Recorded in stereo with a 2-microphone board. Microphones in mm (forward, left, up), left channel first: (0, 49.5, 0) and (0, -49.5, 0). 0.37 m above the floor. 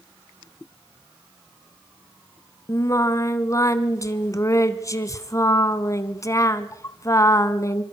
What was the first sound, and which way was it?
Singing, 35° left (ahead or behind).